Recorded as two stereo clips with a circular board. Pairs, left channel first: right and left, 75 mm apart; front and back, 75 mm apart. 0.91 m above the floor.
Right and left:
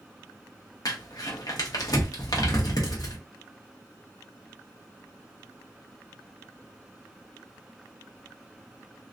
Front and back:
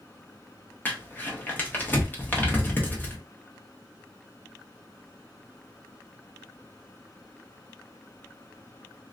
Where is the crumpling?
65° right, 0.9 m.